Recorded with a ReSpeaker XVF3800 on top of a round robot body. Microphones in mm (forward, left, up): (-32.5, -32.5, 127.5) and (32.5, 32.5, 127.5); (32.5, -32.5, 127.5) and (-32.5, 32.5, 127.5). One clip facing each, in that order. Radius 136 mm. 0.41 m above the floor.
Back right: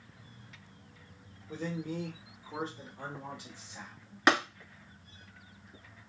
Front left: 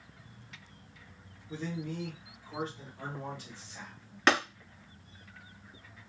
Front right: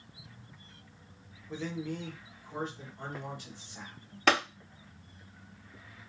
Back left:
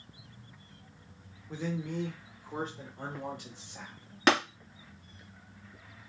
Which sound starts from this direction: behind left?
Tapping, at 4.3 s.